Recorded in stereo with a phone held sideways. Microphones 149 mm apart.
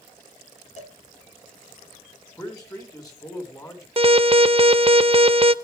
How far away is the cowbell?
About 2.5 m.